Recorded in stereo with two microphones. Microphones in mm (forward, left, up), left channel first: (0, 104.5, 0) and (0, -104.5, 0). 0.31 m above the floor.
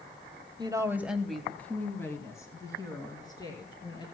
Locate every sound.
0.6 s a woman speaking: 20° right (ahead or behind), 1.3 m; by 4.0 s 20° left (ahead or behind), 5.5 m